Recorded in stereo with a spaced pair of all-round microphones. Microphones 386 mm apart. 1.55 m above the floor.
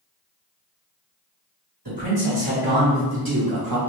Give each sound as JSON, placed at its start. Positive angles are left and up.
{"t": 1.9, "sound": "a man speaking", "side_deg": -75, "distance_m": 2.0}